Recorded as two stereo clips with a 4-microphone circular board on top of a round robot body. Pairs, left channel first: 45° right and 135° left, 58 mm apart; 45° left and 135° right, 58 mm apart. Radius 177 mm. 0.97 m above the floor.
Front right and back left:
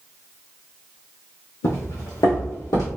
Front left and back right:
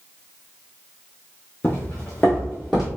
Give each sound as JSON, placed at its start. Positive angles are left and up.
{"t": 1.6, "sound": "footsteps", "azimuth_deg": -15, "distance_m": 1.8}